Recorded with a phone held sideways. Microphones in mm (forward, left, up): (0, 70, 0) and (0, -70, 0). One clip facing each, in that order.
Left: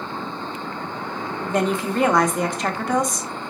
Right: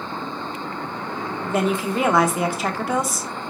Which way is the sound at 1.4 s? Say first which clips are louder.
Even; 5° right (ahead or behind).